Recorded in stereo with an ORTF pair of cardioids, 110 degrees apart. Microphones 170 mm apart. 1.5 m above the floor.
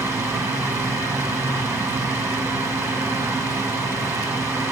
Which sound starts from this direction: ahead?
A fan, at 0.0 s.